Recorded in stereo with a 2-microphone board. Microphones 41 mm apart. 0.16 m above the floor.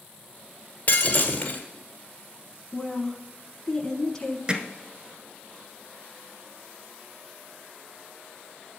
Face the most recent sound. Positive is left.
turn(degrees=-20)  # may be behind; listen again after turning